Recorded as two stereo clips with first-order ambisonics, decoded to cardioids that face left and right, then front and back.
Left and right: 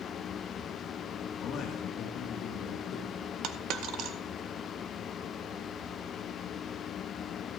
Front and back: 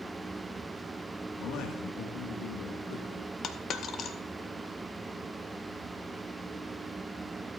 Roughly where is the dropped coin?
Ahead right.